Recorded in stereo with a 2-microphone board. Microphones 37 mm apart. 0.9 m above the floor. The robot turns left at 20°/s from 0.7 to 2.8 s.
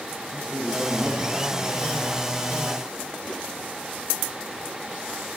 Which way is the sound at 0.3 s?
20° right (ahead or behind).